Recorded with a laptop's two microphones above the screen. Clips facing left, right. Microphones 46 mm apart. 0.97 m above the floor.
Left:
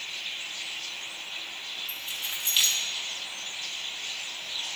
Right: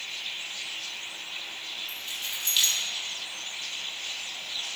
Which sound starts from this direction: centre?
Keys jangling, at 1.9 s.